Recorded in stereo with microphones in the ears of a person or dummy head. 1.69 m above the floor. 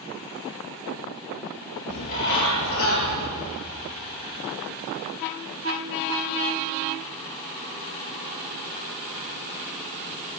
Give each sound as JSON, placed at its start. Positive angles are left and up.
{"t": 1.9, "sound": "a bird", "side_deg": 75, "distance_m": 8.0}